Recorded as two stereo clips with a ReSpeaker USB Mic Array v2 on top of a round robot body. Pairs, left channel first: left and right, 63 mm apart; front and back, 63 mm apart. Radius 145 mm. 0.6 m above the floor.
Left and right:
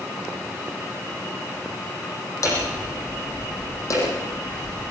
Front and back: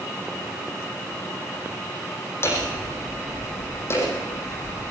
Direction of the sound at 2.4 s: 50° left.